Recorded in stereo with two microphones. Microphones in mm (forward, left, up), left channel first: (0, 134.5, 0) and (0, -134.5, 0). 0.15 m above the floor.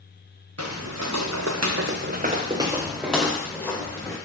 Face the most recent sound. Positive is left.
turn(degrees=10)  # may be behind; listen again after turning